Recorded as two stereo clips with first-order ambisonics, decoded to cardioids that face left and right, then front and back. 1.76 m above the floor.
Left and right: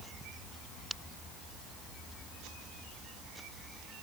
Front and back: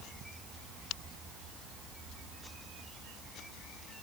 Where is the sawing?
No sawing in this recording.